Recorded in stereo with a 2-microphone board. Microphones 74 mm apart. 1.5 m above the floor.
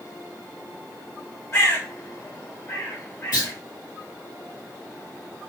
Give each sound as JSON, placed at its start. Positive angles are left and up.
{"t": 1.5, "sound": "a bird", "side_deg": 35, "distance_m": 1.6}
{"t": 3.3, "sound": "a clunk", "side_deg": 60, "distance_m": 2.0}